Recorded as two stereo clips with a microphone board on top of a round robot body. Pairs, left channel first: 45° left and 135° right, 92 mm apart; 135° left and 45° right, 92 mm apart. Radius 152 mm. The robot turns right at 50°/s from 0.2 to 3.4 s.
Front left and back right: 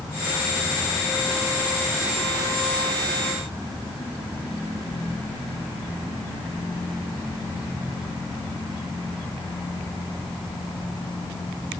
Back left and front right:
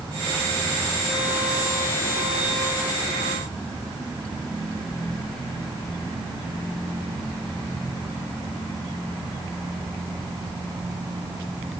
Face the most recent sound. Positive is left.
No sound to turn to.